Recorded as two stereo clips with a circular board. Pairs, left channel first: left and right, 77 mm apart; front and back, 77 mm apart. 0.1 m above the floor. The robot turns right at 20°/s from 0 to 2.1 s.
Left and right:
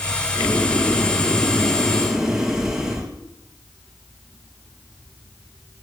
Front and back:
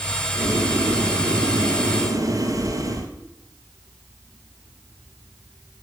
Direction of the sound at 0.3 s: 155° left.